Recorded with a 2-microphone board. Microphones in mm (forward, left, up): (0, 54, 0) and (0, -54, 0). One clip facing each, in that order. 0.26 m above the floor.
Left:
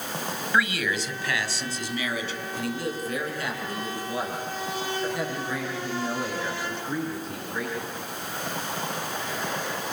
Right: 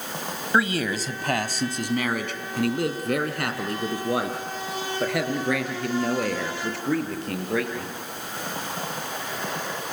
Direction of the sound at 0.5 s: 30° right (ahead or behind).